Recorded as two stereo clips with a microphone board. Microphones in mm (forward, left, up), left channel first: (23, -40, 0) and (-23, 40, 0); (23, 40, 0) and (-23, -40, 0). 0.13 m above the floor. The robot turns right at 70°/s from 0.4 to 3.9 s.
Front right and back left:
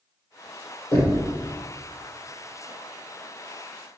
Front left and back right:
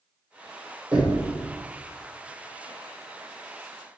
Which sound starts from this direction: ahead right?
Knocking, at 0.9 s.